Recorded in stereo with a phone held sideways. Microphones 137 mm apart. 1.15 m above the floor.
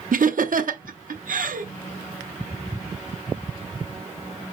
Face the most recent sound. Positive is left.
turn(degrees=-80)